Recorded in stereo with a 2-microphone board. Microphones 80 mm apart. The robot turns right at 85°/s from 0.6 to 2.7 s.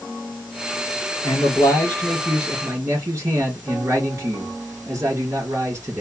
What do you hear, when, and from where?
1.2 s a man speaking: 95° left, 2.5 m; by 6.0 s 140° right, 2.5 m